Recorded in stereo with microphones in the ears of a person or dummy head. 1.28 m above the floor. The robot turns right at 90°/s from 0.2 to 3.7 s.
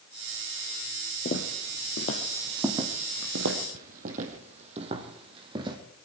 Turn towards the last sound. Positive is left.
turn(degrees=-25)  # may be behind; listen again after turning